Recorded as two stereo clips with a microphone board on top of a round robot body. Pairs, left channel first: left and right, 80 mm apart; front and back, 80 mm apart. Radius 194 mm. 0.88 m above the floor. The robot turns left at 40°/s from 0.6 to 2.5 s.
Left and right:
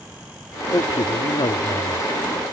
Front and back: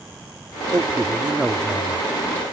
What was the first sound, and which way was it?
A man speaking, 125° left.